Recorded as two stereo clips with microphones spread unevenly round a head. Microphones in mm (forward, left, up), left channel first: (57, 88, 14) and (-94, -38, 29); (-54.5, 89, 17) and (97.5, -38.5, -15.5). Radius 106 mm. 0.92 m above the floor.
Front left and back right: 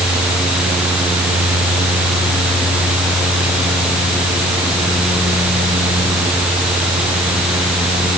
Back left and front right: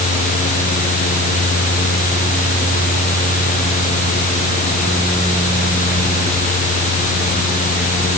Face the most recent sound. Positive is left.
No sound to turn to.